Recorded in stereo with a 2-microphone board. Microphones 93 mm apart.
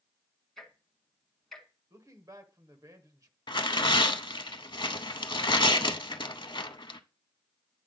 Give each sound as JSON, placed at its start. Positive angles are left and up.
{"t": 0.6, "sound": "ticking", "side_deg": 5, "distance_m": 1.7}
{"t": 1.9, "sound": "a man speaking", "side_deg": -40, "distance_m": 1.0}
{"t": 3.5, "sound": "tearing paper", "side_deg": 60, "distance_m": 0.5}